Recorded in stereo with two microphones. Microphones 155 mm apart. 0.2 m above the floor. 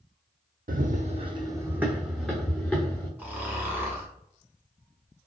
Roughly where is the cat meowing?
No cat meowing in this recording.